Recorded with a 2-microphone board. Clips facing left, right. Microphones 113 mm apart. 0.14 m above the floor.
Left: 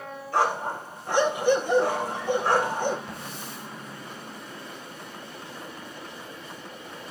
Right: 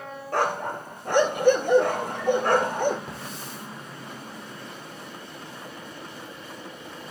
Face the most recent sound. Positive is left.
turn(degrees=-40)  # may be behind; listen again after turning